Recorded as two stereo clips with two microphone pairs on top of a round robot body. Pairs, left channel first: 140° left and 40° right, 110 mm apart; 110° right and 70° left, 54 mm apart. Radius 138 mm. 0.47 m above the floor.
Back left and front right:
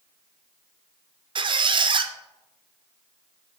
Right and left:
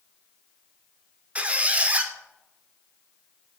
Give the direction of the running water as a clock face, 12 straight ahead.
No running water in this recording.